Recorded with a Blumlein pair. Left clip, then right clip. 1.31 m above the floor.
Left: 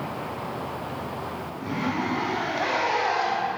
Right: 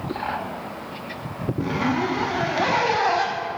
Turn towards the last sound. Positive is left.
turn(degrees=-20)